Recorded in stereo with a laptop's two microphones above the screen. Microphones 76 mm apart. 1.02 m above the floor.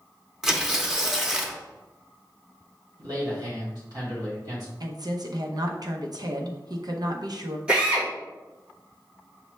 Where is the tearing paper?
5° right (ahead or behind), 0.6 m.